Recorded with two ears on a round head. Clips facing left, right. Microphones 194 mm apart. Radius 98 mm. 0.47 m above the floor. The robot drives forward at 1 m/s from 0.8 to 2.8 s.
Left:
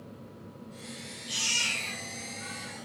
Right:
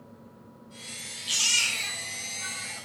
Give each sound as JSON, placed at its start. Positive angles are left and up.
{"t": 1.3, "sound": "a baby crying", "side_deg": -80, "distance_m": 8.5}